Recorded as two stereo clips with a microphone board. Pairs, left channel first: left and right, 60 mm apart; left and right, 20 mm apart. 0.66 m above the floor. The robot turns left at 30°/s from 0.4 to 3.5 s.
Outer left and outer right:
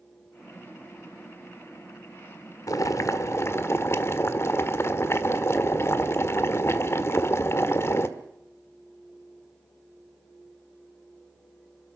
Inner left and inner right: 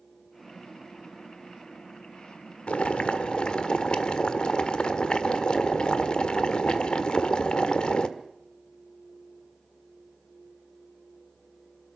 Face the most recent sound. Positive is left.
turn(degrees=45)  # may be behind; listen again after turning